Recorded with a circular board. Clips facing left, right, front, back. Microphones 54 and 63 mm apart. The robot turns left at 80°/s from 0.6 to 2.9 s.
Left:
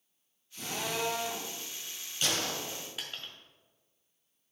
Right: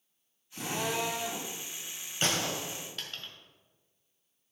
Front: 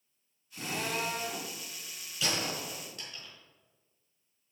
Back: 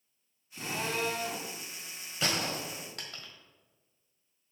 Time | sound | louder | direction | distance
0.5 | a drill | right 3 dB, back 1 dB | 90° right | 4 m
2.2 | a gunshot | right 2 dB, back 1 dB | 135° right | 1.6 m